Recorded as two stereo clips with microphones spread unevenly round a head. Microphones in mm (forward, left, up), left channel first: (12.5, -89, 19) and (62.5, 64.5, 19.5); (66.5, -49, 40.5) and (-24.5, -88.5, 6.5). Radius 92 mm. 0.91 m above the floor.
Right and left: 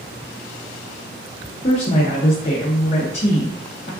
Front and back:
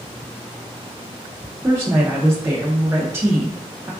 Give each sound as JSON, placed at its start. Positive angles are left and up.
{"t": 1.6, "sound": "a woman speaking", "azimuth_deg": -140, "distance_m": 0.5}